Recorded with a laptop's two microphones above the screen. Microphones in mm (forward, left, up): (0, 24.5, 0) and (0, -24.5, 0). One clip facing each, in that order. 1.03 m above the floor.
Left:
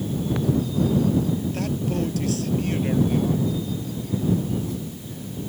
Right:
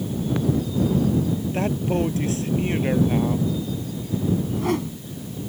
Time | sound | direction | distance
1.5 | a man speaking | 25° right (ahead or behind) | ?
4.4 | a whoosh | 65° right (ahead or behind) | ?